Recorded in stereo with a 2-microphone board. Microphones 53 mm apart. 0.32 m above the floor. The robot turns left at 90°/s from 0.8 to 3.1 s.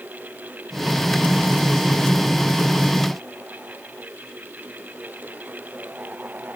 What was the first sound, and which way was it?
Only background noise.